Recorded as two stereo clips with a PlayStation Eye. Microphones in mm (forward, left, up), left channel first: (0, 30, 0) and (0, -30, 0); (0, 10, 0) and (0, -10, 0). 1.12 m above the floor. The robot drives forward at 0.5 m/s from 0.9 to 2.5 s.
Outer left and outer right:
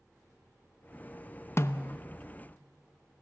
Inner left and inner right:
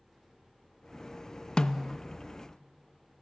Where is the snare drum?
45° left (ahead or behind), 0.7 m; by 2.0 s 60° left (ahead or behind), 0.5 m.